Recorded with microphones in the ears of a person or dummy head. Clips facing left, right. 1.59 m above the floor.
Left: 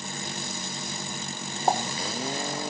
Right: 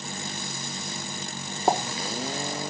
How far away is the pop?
About 1.2 m.